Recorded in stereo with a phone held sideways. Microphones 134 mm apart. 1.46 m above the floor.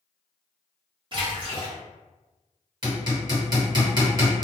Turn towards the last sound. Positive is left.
turn(degrees=-35)  # may be behind; listen again after turning